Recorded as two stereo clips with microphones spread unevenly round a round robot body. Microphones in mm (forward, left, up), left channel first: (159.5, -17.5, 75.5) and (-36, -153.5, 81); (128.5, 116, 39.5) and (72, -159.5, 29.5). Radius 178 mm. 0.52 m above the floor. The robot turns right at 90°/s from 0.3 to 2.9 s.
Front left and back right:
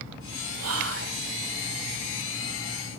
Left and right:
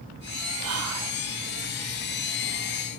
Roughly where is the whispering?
Behind right.